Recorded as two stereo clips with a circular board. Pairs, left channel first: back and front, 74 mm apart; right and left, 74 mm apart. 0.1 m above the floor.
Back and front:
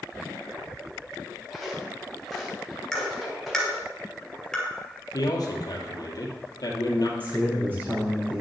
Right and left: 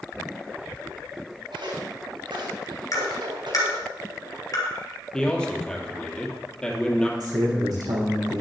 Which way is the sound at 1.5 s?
90° left.